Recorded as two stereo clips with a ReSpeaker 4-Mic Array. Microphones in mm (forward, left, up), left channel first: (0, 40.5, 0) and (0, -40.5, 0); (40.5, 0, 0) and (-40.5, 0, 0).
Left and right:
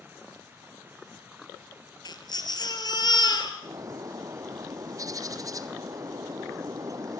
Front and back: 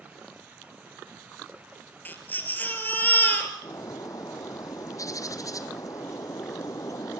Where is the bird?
45° right, 1.2 m.